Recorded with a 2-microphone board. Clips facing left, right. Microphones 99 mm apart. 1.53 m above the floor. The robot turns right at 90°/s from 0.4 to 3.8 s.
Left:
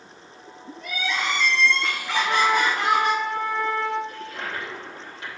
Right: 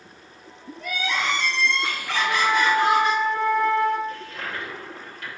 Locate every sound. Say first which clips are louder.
0.8 s crying: right 1 dB; 105° right, 2 m; by 3.1 s 105° left, 2 m
2.1 s a flute: left 1 dB; 120° left, 3 m; by 4.0 s 90° right, 3 m
4.1 s a toilet flushing: even; 20° left (ahead or behind), 3.5 m